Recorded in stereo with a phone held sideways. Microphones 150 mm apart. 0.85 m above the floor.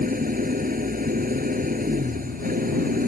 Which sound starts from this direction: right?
An engine running, at 0.0 s.